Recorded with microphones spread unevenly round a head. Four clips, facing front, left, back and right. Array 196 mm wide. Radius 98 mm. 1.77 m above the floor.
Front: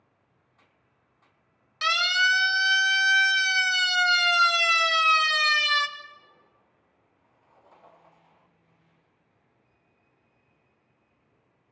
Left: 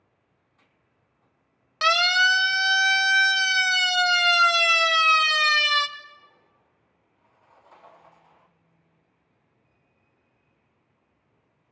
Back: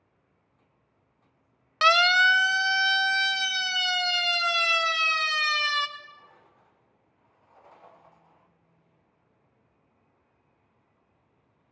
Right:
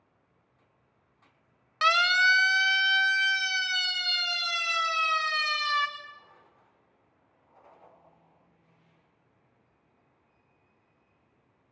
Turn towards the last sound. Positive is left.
turn(degrees=90)